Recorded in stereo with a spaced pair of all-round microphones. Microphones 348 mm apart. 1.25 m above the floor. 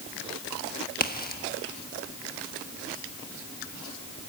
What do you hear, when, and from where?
1.0 s a crack: 25° left (ahead or behind), 1.2 m